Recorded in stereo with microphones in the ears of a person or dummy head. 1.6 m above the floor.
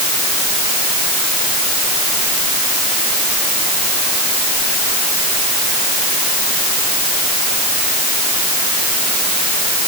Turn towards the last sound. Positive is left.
No sound to turn to.